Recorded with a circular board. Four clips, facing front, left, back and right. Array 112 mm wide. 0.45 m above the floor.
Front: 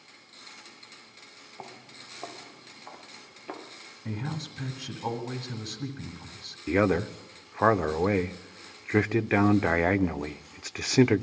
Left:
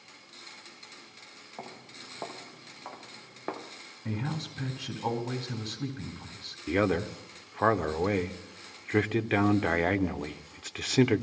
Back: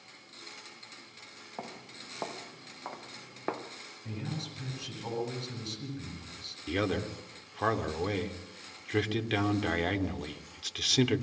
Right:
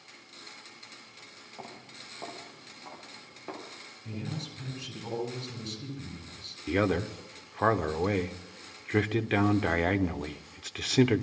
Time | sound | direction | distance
1.6 | footsteps | 160° left | 5.5 m
4.0 | a man speaking | 55° left | 5 m
6.7 | a man speaking | 5° left | 0.8 m